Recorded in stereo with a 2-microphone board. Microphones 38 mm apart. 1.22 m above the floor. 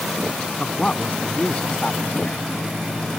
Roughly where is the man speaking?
Left.